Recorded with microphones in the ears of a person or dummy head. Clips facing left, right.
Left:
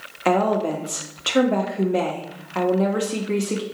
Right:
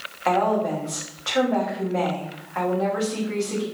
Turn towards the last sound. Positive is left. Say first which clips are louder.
# left 2 dB
turn(degrees=40)  # may be behind; listen again after turning